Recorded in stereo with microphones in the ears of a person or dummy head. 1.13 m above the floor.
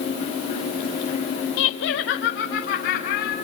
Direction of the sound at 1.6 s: 60° left (ahead or behind).